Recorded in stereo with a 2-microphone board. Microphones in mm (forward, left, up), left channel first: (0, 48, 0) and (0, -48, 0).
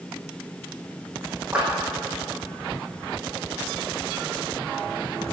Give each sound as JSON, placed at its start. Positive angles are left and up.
{"t": 1.5, "sound": "a clap", "side_deg": -10, "distance_m": 5.5}